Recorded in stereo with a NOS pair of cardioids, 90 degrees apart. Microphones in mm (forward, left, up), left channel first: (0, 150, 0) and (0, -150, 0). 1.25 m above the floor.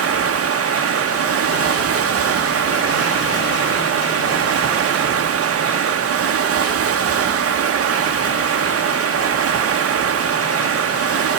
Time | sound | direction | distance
0.0 | running water | 50° right | 1.4 m